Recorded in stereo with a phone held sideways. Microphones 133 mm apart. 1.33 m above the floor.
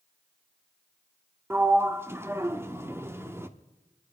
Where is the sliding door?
20° right (ahead or behind), 0.9 m.